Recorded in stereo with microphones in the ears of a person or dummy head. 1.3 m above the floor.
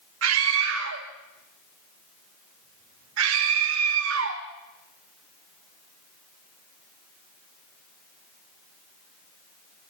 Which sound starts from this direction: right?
A scream, at 0.2 s.